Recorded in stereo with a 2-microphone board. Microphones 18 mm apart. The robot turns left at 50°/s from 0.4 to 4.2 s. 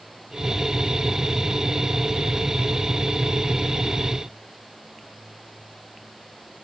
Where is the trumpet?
No trumpet in this recording.